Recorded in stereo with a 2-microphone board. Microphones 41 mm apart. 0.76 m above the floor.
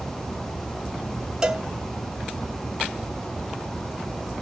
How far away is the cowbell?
About 0.9 m.